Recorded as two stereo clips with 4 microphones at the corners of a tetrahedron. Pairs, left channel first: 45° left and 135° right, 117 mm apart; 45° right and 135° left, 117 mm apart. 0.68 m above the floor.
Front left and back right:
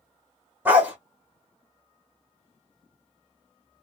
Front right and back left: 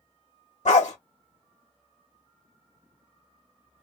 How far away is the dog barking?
About 1.1 m.